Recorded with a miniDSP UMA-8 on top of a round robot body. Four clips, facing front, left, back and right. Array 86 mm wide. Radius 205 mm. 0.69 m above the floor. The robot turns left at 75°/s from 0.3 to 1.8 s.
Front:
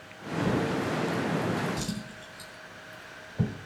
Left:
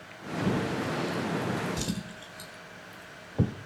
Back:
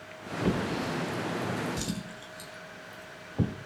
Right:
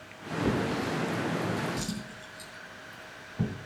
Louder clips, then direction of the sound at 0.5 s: Right 1 dB, front 1 dB; 140° right.